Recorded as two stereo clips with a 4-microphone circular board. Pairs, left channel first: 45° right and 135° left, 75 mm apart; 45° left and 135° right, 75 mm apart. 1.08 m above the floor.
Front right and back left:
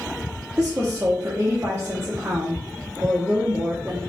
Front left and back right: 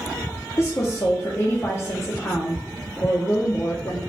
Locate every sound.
0.6 s a woman speaking: 85° left, 0.5 m